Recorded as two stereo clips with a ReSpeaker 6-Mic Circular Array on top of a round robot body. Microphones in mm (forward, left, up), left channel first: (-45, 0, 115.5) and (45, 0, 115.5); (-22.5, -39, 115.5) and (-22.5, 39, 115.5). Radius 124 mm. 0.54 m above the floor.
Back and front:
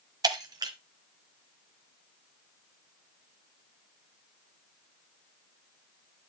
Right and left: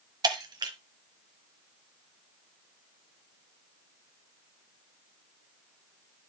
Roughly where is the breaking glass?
Ahead left.